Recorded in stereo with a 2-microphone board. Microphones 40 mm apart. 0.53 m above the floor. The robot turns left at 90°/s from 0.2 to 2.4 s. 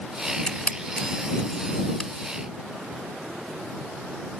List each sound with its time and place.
0.5 s a camera shutter: 20° left (ahead or behind); by 2.1 s 10° left (ahead or behind)